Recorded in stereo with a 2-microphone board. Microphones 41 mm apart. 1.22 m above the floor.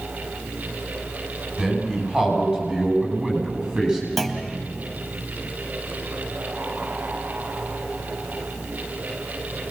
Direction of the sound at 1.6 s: 35° right (ahead or behind).